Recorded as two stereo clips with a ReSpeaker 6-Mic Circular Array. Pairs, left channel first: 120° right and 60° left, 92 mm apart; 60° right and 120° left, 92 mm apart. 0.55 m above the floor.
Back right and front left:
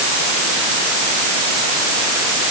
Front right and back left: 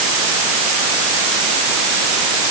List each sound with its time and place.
Only background noise.